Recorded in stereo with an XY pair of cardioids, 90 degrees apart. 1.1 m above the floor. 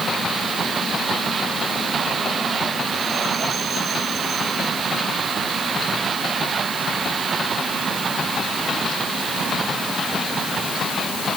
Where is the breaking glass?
No breaking glass in this recording.